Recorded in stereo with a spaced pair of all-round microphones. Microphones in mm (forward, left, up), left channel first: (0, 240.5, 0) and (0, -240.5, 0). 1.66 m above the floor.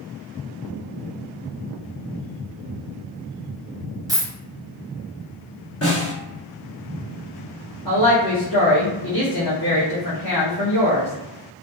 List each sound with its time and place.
4.1 s a dropped coin: 5° right (ahead or behind), 0.9 m
5.8 s a snare drum: 30° left (ahead or behind), 1.4 m
7.8 s a woman speaking: 45° left (ahead or behind), 0.7 m